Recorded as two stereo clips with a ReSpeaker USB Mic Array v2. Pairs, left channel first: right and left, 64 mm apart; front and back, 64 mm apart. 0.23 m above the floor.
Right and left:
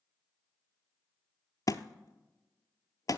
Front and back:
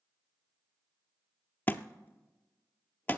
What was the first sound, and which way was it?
A thud, 60° right.